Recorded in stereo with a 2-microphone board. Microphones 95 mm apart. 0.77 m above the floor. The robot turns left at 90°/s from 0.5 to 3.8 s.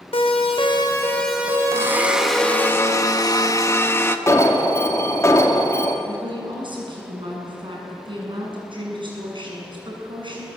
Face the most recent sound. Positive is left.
turn(degrees=-55)  # may be behind; listen again after turning